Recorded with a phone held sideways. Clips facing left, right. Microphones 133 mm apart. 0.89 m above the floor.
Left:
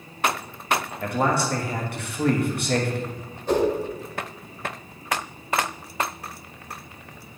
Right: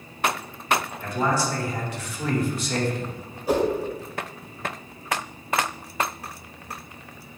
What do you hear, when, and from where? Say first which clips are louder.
1.0 s a man speaking: left 4 dB; 60° left (ahead or behind), 1.2 m
3.5 s a whoosh: even; 10° right (ahead or behind), 1.8 m